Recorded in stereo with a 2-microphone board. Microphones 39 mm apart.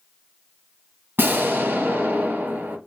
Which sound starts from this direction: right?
An explosion, at 1.2 s.